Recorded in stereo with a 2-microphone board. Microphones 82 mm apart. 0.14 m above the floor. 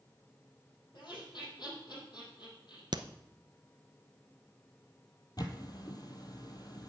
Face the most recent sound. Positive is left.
turn(degrees=55)  # may be behind; listen again after turning